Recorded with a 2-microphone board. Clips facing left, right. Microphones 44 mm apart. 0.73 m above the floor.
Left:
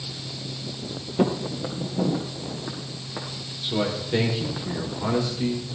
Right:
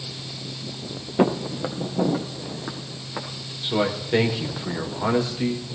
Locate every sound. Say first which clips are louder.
1.2 s footsteps: right 3 dB; 35° right (ahead or behind), 0.9 m; by 3.3 s 20° right (ahead or behind), 2.5 m
3.6 s a man speaking: right 3 dB; 25° right (ahead or behind), 3 m